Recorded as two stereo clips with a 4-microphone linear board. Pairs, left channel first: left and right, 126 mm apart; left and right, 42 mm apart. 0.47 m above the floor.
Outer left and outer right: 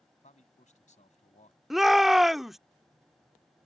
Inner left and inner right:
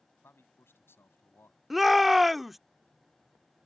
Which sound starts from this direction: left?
A man speaking, at 0.2 s.